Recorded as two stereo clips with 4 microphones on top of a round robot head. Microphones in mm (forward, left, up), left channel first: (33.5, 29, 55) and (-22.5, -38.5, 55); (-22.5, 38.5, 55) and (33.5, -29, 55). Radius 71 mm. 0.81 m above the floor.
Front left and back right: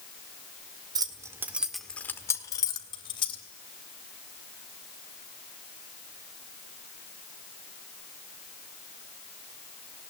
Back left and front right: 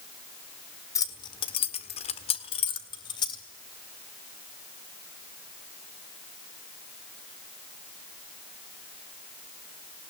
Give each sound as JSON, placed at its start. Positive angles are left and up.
{"t": 0.9, "sound": "keys jangling", "azimuth_deg": -175, "distance_m": 1.5}